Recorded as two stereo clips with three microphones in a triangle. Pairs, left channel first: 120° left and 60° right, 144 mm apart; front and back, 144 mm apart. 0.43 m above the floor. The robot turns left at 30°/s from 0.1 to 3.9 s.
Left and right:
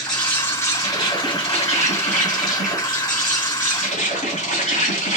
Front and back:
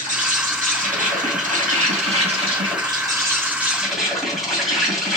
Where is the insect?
155° right, 2 m; by 5.2 s 90° left, 2 m.